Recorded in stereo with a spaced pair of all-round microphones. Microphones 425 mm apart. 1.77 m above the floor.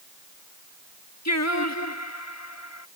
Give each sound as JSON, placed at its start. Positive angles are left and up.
{"t": 1.2, "sound": "singing", "side_deg": 40}